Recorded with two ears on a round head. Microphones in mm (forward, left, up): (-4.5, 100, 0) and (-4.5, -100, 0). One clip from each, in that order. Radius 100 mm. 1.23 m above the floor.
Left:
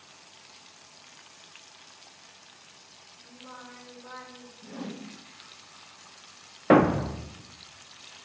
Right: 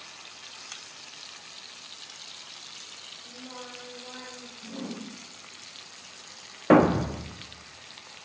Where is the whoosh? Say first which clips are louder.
Right 1 dB; 70° left (ahead or behind), 1.9 m.